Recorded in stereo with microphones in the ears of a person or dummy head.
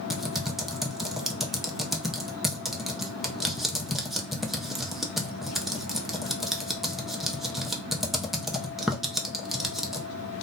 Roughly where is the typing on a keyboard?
Centre.